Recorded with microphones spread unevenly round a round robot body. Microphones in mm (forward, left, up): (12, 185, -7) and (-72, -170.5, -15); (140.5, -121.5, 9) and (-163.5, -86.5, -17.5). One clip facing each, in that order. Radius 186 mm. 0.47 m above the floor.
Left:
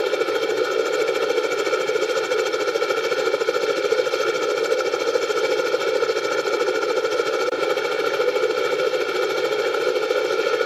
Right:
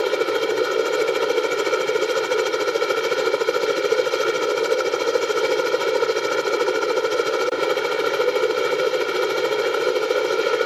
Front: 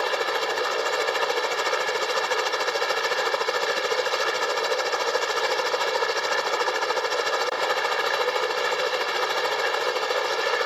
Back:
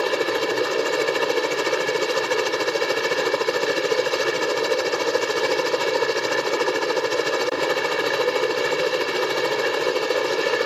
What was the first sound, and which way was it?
A helicopter, 170° left.